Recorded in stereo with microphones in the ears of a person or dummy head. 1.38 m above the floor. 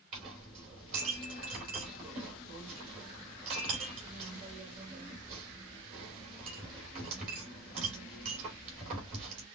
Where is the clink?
40° right (ahead or behind), 3 m.